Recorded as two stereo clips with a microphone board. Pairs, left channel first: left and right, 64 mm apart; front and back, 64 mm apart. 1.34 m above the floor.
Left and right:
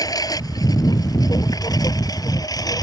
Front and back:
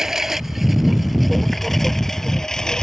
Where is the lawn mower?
100° left; by 2.8 s 80° left.